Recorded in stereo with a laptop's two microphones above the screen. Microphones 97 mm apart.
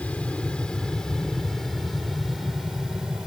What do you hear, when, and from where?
0.0 s an aircraft: 10° left (ahead or behind); by 3.3 s 5° right (ahead or behind)